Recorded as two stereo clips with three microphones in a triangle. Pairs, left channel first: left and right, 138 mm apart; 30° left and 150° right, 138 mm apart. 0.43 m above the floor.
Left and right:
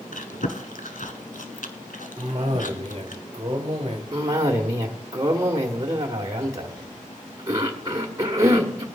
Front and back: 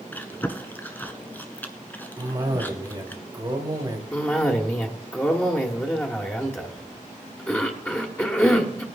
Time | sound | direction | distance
0.1 | chewing | 105° left | 1.1 m
2.2 | a cough | 110° right | 1.7 m
4.1 | a cough | 40° right | 1.1 m